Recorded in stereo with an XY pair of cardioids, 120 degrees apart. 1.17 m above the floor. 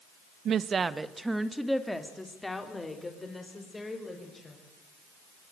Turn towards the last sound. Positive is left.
turn(degrees=20)